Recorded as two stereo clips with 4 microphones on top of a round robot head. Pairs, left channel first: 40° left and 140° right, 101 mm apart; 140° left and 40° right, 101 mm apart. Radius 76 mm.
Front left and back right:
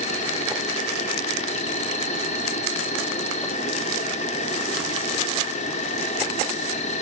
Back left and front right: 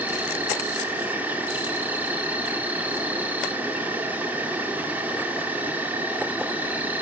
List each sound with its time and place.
0.0 s an insect: 35° left, 1.5 m